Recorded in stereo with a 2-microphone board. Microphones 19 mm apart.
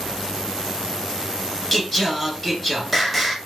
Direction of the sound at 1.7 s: 10° left (ahead or behind).